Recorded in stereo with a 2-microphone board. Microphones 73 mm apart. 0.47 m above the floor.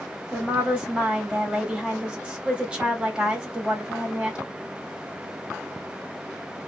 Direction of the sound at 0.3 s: 15° right (ahead or behind).